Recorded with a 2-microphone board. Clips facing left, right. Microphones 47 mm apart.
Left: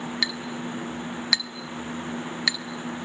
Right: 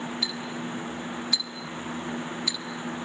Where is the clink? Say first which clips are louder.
Left 2 dB; 70° left (ahead or behind), 1.4 m.